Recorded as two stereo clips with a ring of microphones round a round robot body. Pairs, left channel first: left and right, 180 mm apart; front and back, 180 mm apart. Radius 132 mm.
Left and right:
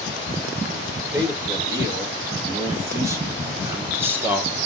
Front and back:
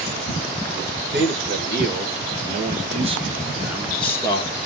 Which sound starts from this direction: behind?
A man speaking, at 1.1 s.